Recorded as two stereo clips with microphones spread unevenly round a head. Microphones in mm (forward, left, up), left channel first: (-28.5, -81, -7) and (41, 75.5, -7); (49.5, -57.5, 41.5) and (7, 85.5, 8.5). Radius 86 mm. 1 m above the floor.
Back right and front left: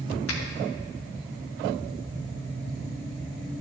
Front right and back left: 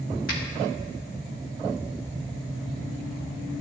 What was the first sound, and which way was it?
A finger snap, 115° right.